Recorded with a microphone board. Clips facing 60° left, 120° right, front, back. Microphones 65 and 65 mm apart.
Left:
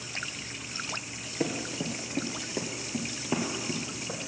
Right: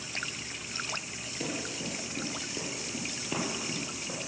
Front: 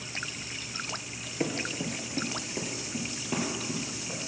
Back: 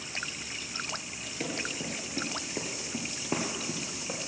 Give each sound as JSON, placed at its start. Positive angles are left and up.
{"t": 1.4, "sound": "running footsteps", "azimuth_deg": 50, "distance_m": 1.5}